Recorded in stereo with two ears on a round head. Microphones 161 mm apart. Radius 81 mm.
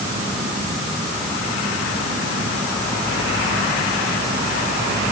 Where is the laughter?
No laughter in this recording.